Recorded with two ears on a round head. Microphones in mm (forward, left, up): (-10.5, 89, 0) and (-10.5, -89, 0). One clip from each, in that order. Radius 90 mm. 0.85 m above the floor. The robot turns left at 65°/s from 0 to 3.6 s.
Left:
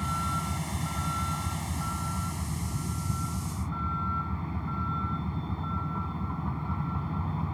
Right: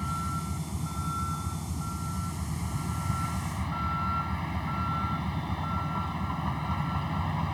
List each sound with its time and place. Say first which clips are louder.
0.0 s a vehicle: left 3 dB; 165° left; by 7.5 s 70° right